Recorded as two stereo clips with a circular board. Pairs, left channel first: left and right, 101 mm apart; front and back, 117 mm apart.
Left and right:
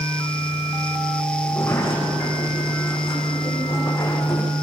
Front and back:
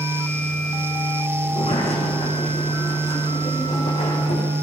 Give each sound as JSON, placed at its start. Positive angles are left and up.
{"t": 1.4, "sound": "a sliding door", "azimuth_deg": 30, "distance_m": 8.0}